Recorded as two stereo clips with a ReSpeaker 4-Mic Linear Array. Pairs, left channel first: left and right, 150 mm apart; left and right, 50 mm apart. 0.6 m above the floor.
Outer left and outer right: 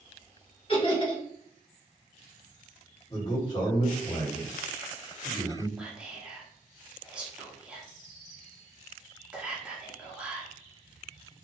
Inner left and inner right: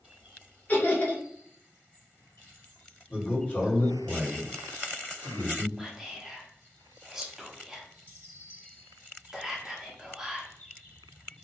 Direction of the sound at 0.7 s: 35° left (ahead or behind).